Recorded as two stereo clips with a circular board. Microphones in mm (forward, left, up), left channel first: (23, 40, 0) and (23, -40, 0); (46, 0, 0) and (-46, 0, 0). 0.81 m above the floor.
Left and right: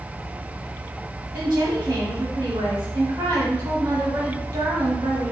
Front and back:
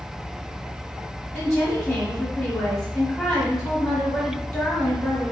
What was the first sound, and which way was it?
A woman speaking, 60° right.